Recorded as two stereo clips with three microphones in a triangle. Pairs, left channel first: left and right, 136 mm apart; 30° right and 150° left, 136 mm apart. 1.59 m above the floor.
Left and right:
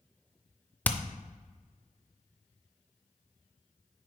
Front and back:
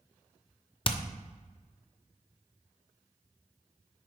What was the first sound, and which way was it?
Hammering, 10° left.